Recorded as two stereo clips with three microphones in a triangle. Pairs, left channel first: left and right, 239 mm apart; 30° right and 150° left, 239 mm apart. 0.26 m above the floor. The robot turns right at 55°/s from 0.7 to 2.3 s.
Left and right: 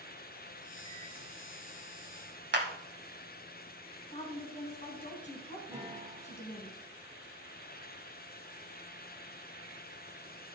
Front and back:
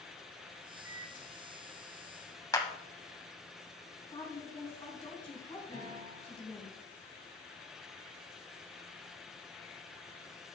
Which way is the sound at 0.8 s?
20° left.